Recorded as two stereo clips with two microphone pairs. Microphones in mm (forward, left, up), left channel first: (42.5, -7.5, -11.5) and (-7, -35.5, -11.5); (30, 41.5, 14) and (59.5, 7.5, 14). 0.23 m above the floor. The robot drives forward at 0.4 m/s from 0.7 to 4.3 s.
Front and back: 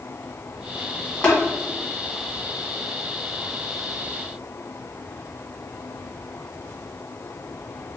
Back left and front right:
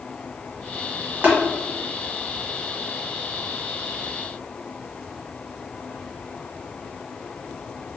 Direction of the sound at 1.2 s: 30° right.